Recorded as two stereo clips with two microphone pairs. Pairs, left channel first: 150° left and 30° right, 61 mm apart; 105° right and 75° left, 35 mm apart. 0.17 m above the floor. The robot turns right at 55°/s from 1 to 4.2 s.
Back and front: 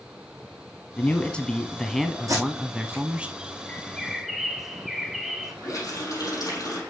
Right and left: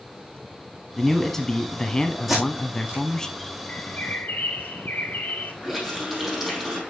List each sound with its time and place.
1.0 s a man speaking: 175° left, 1.1 m; by 3.3 s 60° right, 1.1 m
2.3 s tape being pulled: 10° right, 3.5 m; by 3.0 s 30° left, 3.5 m
3.7 s a bird: 145° right, 0.9 m; by 5.5 s 120° right, 0.9 m
5.6 s a running tap: 160° left, 4.5 m